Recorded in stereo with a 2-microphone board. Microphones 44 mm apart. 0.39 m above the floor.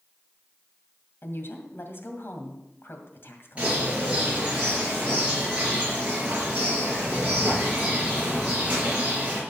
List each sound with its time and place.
1.2 s a woman speaking: 60° left (ahead or behind), 2 m
3.6 s a bird: 30° right (ahead or behind), 5 m